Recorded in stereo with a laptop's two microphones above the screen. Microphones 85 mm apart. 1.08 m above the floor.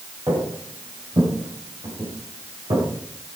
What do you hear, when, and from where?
0.3 s footsteps: 60° right (ahead or behind), 5 m; by 2.9 s 75° right (ahead or behind), 5.5 m